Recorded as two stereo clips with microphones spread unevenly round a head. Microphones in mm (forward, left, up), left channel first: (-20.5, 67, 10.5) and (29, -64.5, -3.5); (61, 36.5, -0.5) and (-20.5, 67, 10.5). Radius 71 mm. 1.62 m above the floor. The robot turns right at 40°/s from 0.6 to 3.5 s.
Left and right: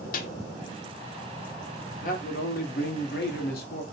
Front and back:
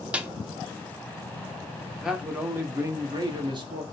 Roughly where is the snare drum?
Left.